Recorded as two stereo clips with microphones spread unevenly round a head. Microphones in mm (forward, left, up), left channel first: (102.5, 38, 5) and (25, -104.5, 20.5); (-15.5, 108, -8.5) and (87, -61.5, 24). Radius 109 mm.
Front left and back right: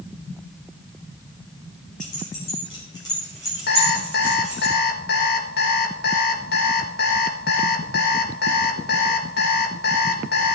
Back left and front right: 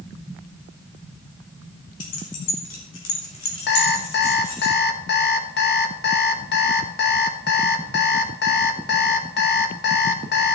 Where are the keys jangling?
120° left, 3 m; by 4.7 s 150° left, 4.5 m.